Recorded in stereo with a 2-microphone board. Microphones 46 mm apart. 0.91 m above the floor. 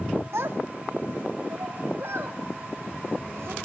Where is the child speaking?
70° right (ahead or behind), 1.1 m; by 3.5 s 65° right (ahead or behind), 3.5 m.